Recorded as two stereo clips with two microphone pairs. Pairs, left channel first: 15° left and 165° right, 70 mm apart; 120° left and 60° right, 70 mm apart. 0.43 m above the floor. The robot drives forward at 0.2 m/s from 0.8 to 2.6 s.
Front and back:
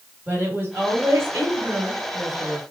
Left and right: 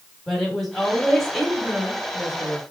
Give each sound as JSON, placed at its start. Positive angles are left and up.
{"t": 0.3, "sound": "a woman speaking", "azimuth_deg": -155, "distance_m": 1.2}